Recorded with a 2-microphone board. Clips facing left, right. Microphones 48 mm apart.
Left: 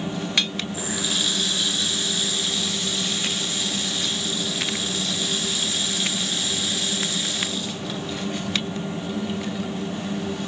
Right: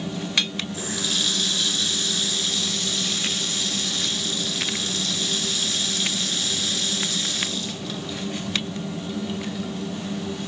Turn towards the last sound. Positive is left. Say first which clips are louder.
# left 1 dB
turn(degrees=10)  # may be behind; listen again after turning